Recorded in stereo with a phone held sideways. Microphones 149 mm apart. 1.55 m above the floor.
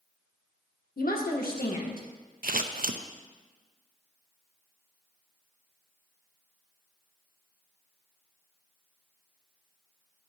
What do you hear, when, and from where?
1.0 s a woman speaking: 80° left, 1.6 m; by 2.1 s 75° left (ahead or behind), 2.5 m
2.4 s scissors: 75° right (ahead or behind), 0.7 m